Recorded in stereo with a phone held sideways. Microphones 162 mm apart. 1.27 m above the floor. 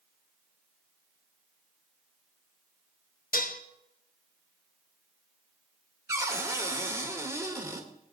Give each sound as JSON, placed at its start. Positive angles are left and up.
{"t": 3.3, "sound": "dishes clattering", "side_deg": 65, "distance_m": 0.9}
{"t": 6.1, "sound": "a cupboard door", "side_deg": -20, "distance_m": 1.3}